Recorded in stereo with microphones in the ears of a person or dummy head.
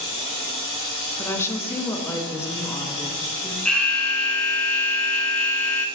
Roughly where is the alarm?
Centre.